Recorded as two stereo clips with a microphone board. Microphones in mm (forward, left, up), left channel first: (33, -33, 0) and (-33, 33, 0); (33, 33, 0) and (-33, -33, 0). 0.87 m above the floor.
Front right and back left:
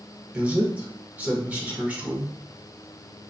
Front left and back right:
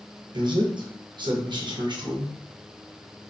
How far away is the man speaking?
About 0.7 m.